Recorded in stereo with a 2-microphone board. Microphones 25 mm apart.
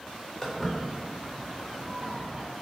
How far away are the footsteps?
About 1.8 m.